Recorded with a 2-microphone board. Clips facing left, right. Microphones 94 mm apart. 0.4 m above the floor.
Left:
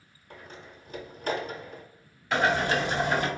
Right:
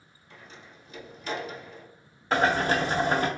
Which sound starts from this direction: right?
Boiling, at 2.3 s.